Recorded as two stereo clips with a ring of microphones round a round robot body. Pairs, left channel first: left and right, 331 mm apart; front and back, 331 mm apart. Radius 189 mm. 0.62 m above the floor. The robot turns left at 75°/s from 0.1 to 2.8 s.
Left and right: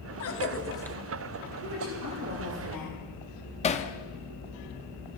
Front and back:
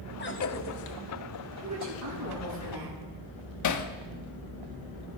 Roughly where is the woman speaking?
Right.